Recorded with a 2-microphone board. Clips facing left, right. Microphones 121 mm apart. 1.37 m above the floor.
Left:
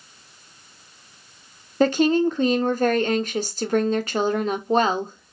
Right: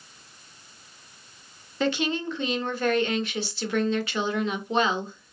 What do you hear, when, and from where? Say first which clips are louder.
1.8 s a woman speaking: left 8 dB; 45° left (ahead or behind), 0.6 m